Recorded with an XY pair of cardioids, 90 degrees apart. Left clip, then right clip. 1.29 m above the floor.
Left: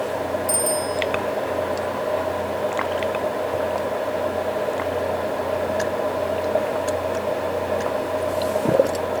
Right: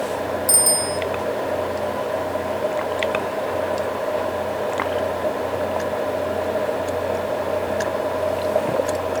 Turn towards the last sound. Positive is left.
turn(degrees=-60)